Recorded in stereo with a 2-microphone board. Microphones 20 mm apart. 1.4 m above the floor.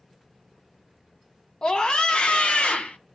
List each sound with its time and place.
1.6 s a scream: 45° left (ahead or behind), 0.9 m; by 3.0 s 80° left, 1.1 m